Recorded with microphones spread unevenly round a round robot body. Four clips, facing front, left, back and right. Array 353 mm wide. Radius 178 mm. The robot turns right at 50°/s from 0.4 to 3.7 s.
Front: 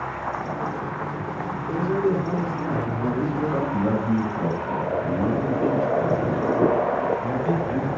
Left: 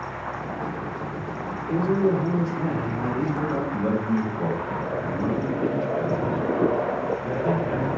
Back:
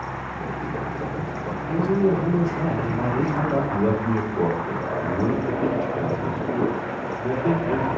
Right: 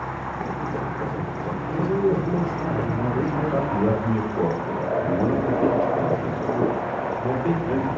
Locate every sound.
1.7 s a man speaking: 90° left, 3.5 m; by 3.6 s 175° right, 3.5 m
3.7 s a man speaking: 155° right, 3.5 m